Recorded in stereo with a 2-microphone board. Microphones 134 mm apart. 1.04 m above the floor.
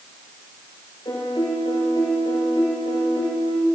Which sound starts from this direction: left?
A piano, at 1.1 s.